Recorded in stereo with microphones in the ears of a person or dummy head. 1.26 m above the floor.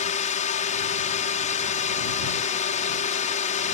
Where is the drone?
40° left (ahead or behind).